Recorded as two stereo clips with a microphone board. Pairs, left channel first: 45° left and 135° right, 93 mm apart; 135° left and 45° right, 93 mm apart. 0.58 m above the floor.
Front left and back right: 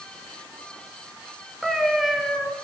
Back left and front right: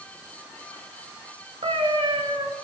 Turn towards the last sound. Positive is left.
turn(degrees=-50)